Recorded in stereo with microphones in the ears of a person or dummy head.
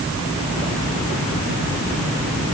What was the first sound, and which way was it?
Only background noise.